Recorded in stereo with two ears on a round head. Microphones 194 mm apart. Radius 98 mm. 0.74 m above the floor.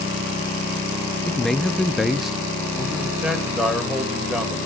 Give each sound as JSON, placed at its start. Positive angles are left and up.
{"t": 1.2, "sound": "a man speaking", "side_deg": 5, "distance_m": 0.5}
{"t": 3.2, "sound": "a man speaking", "side_deg": -5, "distance_m": 2.5}